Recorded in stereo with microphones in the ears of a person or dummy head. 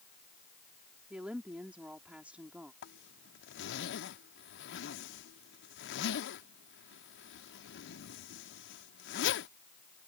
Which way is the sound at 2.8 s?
80° left.